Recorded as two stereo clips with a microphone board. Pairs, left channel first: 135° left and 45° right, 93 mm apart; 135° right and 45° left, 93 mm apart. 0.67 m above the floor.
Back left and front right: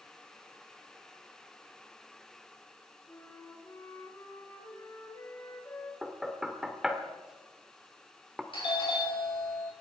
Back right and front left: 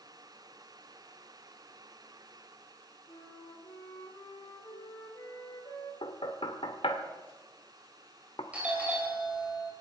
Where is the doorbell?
120° left, 5 m.